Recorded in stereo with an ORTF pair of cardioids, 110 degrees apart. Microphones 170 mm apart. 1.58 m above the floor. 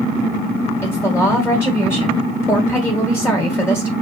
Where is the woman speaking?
15° left, 1.6 m.